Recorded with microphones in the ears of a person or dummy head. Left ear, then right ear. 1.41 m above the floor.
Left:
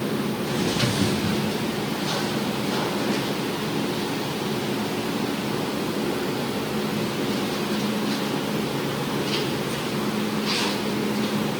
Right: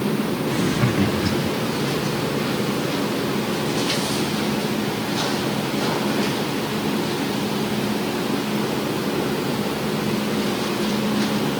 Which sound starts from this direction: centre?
Laughter, at 0.5 s.